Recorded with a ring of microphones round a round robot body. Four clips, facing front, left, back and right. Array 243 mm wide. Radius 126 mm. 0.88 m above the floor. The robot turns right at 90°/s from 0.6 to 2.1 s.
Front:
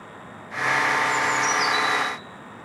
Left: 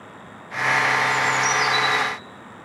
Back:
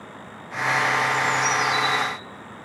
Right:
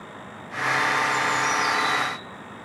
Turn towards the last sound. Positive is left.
turn(degrees=140)